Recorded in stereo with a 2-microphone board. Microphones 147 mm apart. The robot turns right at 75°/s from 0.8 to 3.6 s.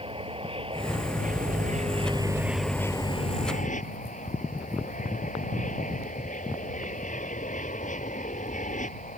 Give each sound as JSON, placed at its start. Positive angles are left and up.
{"t": 0.0, "sound": "an aircraft", "azimuth_deg": -135}